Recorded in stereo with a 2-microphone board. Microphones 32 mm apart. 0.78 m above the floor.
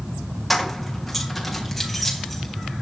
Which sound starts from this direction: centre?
Keys jangling, at 0.5 s.